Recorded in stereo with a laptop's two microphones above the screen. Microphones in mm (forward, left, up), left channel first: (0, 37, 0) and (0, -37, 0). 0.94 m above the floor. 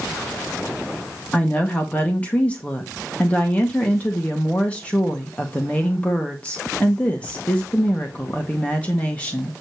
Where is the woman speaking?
20° left (ahead or behind), 1.5 m.